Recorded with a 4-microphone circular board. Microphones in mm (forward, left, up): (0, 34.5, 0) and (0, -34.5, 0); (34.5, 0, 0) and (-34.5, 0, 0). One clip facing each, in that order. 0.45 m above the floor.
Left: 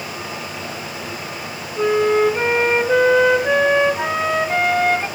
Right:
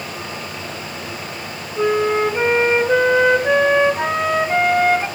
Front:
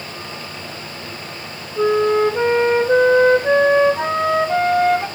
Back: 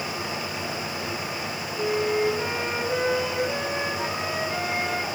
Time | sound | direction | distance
1.8 | a flute | 10° right | 0.6 m